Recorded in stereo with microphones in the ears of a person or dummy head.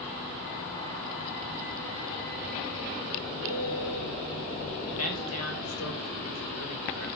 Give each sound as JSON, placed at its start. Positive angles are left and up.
{"t": 3.4, "sound": "a piano", "side_deg": 55, "distance_m": 4.5}
{"t": 4.8, "sound": "a man speaking", "side_deg": 85, "distance_m": 3.5}